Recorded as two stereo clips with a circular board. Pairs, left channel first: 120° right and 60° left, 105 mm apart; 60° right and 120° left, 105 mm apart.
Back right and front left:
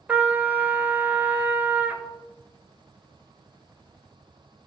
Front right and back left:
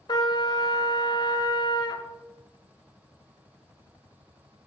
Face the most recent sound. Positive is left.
turn(degrees=-15)